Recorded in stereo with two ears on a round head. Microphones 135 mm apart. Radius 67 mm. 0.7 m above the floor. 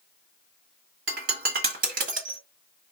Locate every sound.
1.1 s breaking glass: 60° right (ahead or behind), 1.5 m